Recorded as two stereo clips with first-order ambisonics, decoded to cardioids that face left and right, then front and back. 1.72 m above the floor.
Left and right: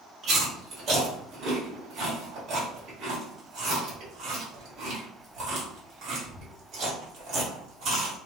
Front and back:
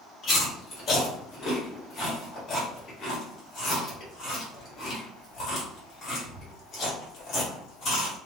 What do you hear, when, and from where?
0.2 s chewing: 50° right, 1.6 m